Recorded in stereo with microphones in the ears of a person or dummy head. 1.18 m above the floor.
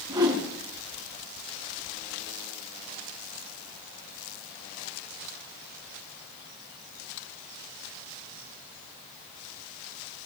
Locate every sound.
0.1 s a whoosh: 15° right (ahead or behind), 4 m